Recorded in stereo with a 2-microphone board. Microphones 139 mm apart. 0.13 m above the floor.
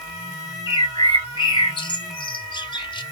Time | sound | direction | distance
0.7 | a bird | 35° left (ahead or behind) | 0.5 m